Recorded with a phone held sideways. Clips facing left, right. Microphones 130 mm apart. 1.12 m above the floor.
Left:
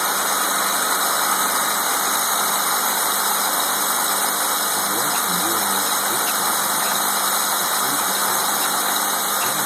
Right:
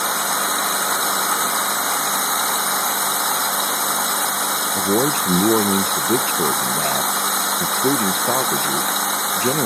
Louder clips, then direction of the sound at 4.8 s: Right 5 dB; 50° right (ahead or behind).